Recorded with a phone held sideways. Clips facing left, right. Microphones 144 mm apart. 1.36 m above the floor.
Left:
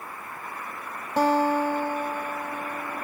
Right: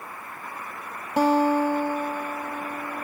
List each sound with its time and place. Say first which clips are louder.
1.2 s a guitar: right 2 dB; 10° right (ahead or behind), 0.6 m